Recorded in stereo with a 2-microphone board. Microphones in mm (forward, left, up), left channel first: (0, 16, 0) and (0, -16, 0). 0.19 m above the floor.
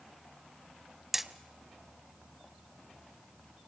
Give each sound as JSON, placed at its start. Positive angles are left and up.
{"t": 1.1, "sound": "hammering", "side_deg": -10, "distance_m": 0.9}